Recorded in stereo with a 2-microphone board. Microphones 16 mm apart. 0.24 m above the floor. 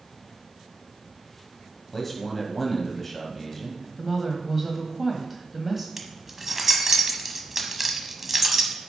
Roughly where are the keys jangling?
Centre.